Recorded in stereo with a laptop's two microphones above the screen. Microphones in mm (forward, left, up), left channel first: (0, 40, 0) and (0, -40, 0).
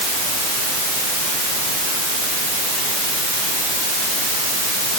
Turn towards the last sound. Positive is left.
No sound to turn to.